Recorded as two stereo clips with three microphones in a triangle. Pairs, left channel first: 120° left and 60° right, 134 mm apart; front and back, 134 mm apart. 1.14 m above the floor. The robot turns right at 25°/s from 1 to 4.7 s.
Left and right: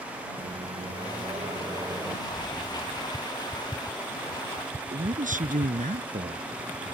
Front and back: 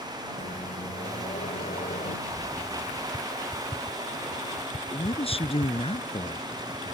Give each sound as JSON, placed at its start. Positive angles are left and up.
{"t": 0.4, "sound": "a microwave", "azimuth_deg": -20}
{"t": 2.3, "sound": "an explosion", "azimuth_deg": 85}
{"t": 4.9, "sound": "a man speaking", "azimuth_deg": -45}